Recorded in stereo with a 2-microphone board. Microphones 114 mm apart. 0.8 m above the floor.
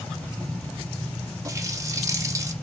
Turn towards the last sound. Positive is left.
turn(degrees=-30)  # may be behind; listen again after turning